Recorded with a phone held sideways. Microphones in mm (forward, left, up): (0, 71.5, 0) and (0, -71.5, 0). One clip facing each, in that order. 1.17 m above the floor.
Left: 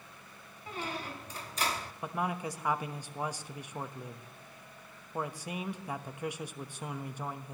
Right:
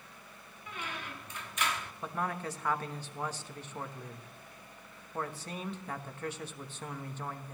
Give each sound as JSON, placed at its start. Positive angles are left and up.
{"t": 0.7, "sound": "a squeak", "side_deg": 35, "distance_m": 0.7}
{"t": 2.0, "sound": "a man speaking", "side_deg": 10, "distance_m": 1.1}